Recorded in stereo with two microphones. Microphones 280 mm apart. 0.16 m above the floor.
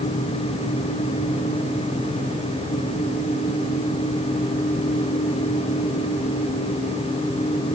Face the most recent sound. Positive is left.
No sound to turn to.